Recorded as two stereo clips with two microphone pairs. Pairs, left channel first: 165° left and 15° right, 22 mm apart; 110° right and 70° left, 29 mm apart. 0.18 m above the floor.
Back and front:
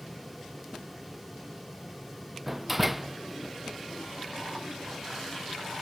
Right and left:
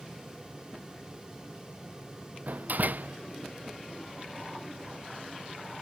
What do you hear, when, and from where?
2.5 s a door slam: 65° left